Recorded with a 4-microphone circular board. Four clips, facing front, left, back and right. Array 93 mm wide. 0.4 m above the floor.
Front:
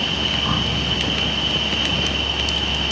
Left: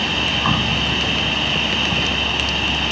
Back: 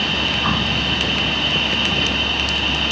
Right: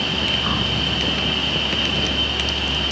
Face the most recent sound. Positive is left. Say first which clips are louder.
# left 3 dB, back 3 dB
turn(degrees=120)